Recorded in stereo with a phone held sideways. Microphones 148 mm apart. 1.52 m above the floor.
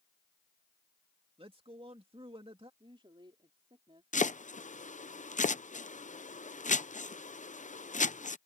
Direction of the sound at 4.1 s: 60° left (ahead or behind).